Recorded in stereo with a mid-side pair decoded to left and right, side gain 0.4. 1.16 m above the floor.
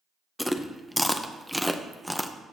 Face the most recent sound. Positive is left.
turn(degrees=5)